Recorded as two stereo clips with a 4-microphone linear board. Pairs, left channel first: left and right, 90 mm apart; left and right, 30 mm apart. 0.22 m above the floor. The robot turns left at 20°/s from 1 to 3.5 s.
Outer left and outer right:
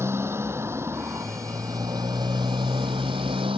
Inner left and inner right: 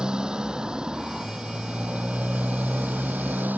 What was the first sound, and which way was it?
A motorcycle, 30° right.